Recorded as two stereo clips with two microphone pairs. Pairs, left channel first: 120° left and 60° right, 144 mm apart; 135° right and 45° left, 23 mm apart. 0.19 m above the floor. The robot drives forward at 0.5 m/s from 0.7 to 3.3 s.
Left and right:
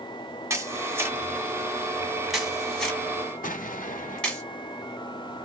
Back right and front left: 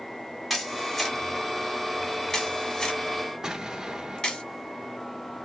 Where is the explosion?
110° left, 0.8 m.